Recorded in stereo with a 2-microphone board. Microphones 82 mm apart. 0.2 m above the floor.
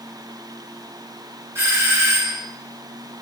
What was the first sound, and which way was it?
A doorbell, 30° right (ahead or behind).